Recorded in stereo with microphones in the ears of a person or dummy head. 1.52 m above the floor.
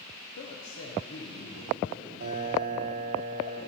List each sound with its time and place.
0.4 s a woman speaking: 70° left (ahead or behind), 0.6 m
2.2 s a piano: 55° right (ahead or behind), 3 m